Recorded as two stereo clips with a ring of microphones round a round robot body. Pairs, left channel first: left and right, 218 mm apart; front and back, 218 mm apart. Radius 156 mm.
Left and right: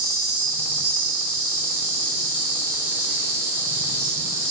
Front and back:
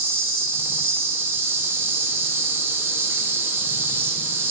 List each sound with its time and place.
0.0 s an insect: 100° left, 0.8 m